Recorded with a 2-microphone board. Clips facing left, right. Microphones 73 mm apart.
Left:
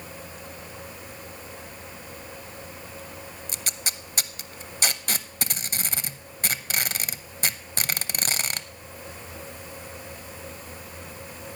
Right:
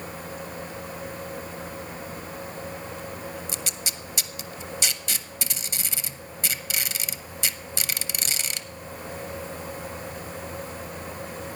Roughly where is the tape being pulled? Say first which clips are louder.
Right 1 dB; left.